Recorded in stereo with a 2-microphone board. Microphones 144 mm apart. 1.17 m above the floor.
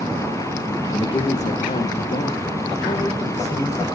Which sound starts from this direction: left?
A man speaking, at 0.9 s.